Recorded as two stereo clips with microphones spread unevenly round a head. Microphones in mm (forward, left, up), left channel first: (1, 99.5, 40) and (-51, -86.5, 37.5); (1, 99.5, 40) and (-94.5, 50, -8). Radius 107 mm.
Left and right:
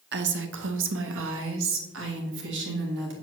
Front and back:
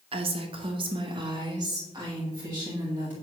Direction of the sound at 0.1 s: 130° right.